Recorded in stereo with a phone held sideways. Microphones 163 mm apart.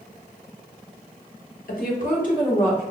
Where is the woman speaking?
60° left (ahead or behind), 1.1 m; by 2.8 s 45° left (ahead or behind), 1.7 m.